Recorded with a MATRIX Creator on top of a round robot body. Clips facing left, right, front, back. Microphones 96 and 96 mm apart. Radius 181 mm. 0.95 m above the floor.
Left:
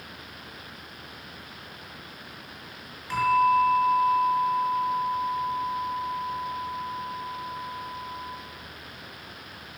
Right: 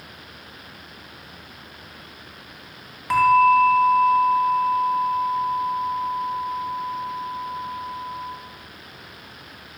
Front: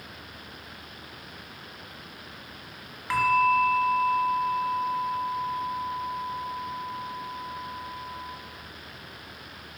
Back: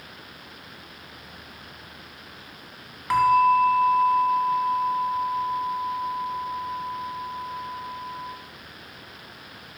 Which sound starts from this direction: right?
A bell, at 3.1 s.